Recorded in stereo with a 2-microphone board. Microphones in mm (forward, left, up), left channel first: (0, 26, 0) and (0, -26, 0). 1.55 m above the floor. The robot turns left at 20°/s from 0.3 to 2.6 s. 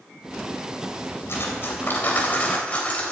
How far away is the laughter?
No laughter in this recording.